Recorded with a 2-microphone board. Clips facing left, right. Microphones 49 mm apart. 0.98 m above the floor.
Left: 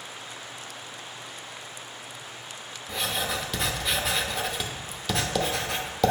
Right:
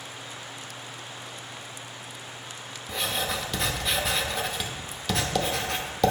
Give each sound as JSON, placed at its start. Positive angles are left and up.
{"t": 2.9, "sound": "writing", "side_deg": 0, "distance_m": 0.6}